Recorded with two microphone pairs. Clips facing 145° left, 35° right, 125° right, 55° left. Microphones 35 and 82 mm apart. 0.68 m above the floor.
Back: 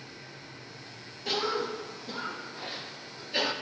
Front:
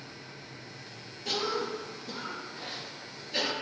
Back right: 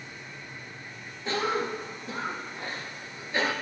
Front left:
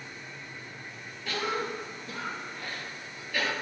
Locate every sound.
1.2 s a cough: 145° right, 0.9 m